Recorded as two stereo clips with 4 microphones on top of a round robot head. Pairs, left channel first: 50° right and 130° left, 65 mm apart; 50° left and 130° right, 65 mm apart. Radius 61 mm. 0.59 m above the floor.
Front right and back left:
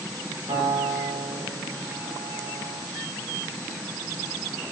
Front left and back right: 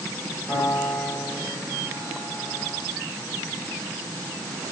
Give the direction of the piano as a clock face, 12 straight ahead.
8 o'clock.